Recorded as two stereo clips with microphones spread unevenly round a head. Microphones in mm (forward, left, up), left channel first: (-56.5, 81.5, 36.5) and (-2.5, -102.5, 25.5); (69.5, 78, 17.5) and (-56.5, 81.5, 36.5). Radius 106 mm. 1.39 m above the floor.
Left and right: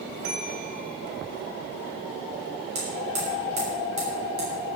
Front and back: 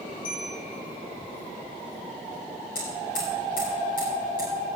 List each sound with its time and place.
0.2 s a bell: 30° right, 4.5 m
2.8 s hammering: 40° right, 7 m